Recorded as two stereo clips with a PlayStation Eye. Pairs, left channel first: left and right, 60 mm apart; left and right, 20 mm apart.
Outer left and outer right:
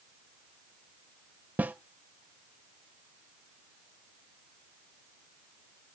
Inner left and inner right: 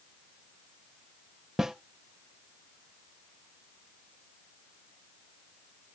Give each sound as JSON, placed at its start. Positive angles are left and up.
{"t": 1.6, "sound": "a snare drum", "side_deg": -30, "distance_m": 0.6}